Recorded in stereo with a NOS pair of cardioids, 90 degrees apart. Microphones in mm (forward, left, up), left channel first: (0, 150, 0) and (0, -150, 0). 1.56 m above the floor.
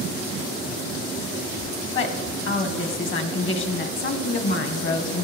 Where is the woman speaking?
40° left, 1.4 m.